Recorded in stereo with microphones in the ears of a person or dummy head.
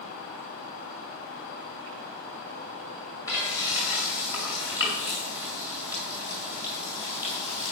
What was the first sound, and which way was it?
Frying, 20° left (ahead or behind).